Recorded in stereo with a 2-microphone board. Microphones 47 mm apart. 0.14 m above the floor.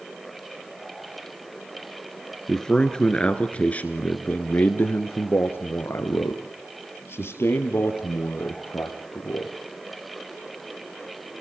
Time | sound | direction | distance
2.5 | a man speaking | 10° left (ahead or behind) | 2.5 m